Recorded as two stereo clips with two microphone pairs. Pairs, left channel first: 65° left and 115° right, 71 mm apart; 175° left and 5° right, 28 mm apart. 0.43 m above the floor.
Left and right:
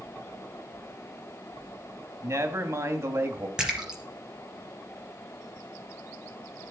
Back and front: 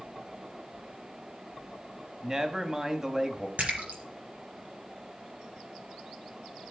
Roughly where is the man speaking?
Right.